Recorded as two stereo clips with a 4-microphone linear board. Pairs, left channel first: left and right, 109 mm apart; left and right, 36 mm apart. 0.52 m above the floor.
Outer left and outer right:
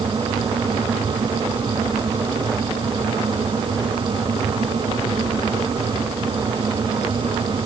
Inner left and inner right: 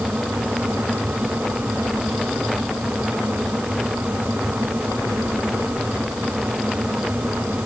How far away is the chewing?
I don't hear chewing.